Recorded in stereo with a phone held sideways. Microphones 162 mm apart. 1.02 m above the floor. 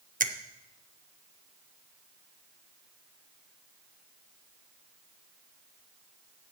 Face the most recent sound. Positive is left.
turn(degrees=-55)  # may be behind; listen again after turning